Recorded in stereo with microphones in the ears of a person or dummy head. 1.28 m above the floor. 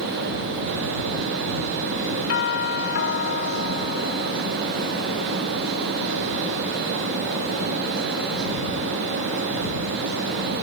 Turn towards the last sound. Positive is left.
turn(degrees=60)  # may be behind; listen again after turning